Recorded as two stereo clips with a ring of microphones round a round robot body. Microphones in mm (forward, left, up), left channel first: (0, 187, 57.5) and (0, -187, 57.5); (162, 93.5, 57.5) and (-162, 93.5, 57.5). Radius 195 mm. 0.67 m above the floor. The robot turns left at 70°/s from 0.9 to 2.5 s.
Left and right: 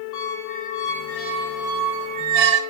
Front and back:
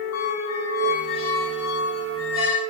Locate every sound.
0.1 s a squeak: 45° left, 0.7 m; by 2.6 s 65° right, 0.7 m